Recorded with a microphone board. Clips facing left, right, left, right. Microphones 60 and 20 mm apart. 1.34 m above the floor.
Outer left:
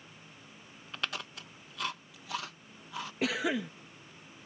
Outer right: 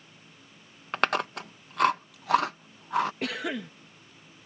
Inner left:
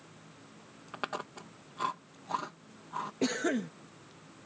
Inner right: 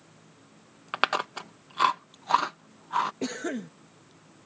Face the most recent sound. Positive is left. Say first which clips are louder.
# outer left 1 dB, inner left 2 dB
turn(degrees=5)  # may be behind; listen again after turning